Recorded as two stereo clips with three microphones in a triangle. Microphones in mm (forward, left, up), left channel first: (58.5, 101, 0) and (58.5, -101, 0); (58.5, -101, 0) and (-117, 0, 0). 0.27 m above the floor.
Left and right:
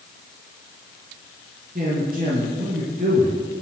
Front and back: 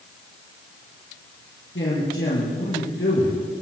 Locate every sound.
1.8 s a man speaking: 45° right, 5 m